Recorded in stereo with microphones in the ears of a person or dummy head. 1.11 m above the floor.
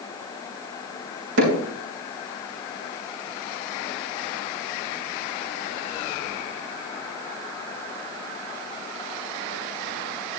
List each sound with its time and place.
1.4 s hammering: 75° right (ahead or behind), 4 m